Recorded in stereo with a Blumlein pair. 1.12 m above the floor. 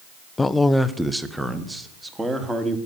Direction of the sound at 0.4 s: 10° left.